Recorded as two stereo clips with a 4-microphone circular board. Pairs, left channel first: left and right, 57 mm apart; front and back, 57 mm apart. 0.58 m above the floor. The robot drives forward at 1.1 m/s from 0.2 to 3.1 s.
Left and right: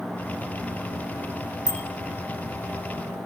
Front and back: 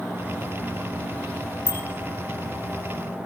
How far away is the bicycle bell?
About 2.5 m.